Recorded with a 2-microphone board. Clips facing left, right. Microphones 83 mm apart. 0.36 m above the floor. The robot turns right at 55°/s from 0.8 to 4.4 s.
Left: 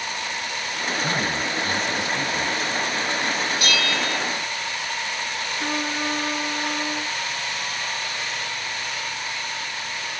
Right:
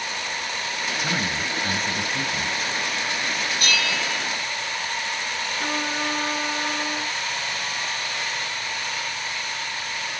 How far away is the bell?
About 2.5 m.